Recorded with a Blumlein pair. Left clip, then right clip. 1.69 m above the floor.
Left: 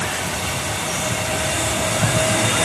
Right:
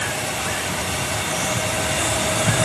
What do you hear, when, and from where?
Only background noise.